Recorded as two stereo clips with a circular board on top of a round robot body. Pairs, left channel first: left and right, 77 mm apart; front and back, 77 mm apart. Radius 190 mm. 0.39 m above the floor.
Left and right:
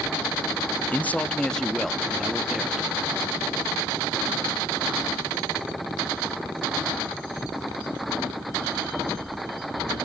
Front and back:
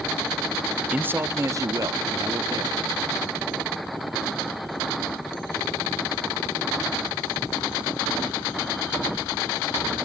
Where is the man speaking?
130° left, 1.0 m; by 2.9 s 175° right, 1.7 m.